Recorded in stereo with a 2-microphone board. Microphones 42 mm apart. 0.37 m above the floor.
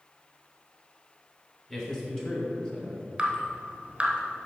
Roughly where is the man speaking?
Centre.